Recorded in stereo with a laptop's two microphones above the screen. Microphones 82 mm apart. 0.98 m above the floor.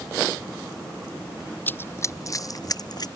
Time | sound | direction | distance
1.7 | running footsteps | 25° left (ahead or behind) | ?